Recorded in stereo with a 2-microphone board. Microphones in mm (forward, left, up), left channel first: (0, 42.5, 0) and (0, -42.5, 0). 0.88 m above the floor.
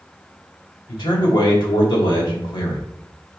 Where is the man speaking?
75° left (ahead or behind), 3 m.